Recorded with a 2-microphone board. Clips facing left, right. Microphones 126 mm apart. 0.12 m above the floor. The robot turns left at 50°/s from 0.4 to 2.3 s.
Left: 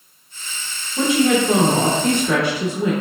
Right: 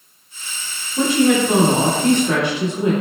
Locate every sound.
1.0 s a woman speaking: 5° left (ahead or behind), 1.1 m; by 2.9 s 20° right (ahead or behind), 1.1 m